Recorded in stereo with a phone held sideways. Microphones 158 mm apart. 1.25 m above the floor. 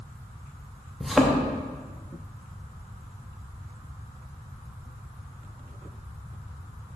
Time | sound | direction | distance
1.0 | a thud | centre (ahead or behind) | 0.8 m